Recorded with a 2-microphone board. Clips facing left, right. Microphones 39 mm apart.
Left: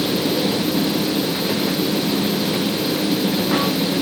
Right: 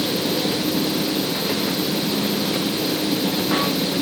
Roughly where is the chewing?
No chewing in this recording.